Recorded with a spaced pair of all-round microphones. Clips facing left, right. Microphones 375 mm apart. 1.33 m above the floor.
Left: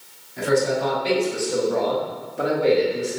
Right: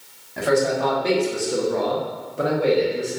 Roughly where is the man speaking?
Right.